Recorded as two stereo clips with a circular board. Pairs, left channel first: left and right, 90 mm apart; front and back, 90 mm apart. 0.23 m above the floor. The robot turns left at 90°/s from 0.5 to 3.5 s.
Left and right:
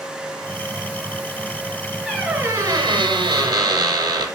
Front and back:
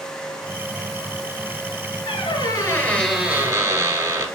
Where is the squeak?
5° left, 0.7 m; by 4.3 s 125° right, 0.7 m.